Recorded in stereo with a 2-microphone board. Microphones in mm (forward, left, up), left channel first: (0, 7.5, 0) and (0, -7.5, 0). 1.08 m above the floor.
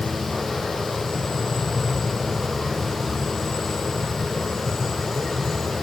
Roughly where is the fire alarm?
No fire alarm in this recording.